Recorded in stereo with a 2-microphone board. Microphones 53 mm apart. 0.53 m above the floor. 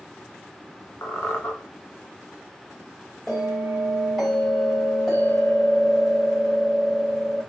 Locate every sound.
1.0 s a squeak: 40° left (ahead or behind), 0.9 m
3.3 s a bell: 5° right (ahead or behind), 1.9 m